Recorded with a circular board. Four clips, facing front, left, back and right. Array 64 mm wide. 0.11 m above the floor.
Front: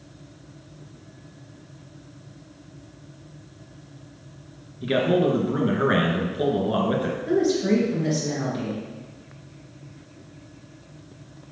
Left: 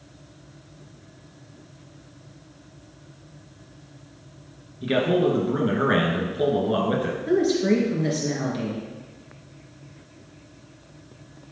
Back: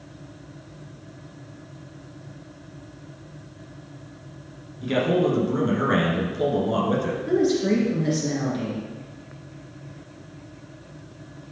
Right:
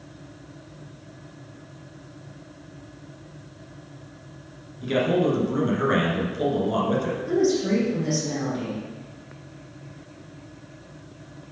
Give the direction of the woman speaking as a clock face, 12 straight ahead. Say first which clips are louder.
Left 2 dB, even; 9 o'clock.